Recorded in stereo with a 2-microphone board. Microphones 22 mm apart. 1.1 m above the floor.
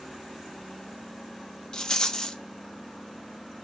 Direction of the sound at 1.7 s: 30° left (ahead or behind).